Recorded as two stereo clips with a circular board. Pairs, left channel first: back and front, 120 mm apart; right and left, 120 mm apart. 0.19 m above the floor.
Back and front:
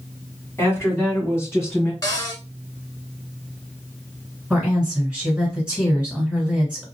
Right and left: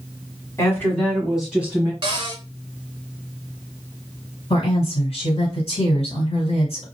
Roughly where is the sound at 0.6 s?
Behind right.